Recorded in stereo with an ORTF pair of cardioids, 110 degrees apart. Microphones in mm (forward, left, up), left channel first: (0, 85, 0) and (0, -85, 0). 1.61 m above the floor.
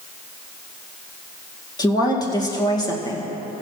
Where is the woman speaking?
25° left, 2.0 m.